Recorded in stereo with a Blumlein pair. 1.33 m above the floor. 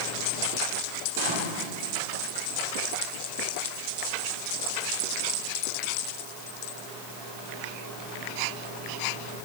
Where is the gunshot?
50° right, 2.0 m.